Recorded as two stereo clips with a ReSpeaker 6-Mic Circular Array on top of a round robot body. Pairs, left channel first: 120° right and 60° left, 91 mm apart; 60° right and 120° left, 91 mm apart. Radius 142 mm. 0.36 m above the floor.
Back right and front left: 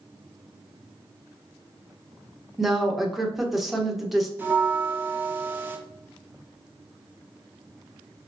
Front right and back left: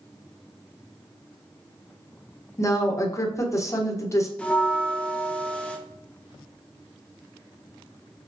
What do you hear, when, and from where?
2.6 s a woman speaking: 25° right, 1.3 m
4.4 s a bell: 5° left, 1.2 m